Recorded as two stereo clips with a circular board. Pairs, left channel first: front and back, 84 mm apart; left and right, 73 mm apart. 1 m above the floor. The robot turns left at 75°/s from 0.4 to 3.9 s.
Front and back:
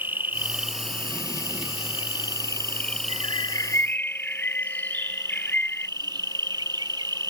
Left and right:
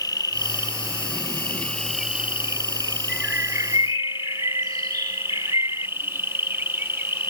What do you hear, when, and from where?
0.0 s an insect: 115° left; by 7.3 s 150° right
3.1 s a bird: 10° right; by 5.9 s 70° right